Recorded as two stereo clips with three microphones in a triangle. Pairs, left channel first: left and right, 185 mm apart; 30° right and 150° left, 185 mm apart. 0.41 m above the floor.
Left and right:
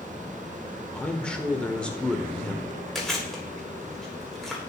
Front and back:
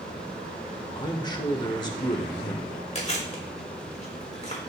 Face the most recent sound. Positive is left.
turn(degrees=5)